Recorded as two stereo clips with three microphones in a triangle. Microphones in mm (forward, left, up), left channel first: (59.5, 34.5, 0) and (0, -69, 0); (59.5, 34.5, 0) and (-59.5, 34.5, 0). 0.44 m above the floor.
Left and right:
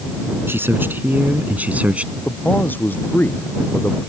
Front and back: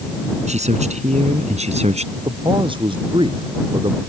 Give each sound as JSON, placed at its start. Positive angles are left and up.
{"t": 0.5, "sound": "a man speaking", "azimuth_deg": 170}
{"t": 2.2, "sound": "a man speaking", "azimuth_deg": 135}